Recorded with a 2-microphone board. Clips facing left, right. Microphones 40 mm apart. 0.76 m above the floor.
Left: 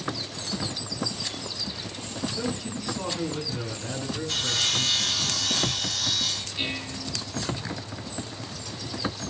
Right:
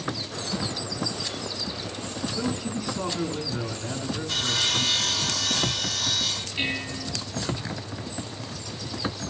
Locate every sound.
2.3 s a man speaking: 5° right (ahead or behind), 8 m
4.3 s sawing: 5° right (ahead or behind), 2.5 m
6.6 s dishes clattering: 35° right (ahead or behind), 10 m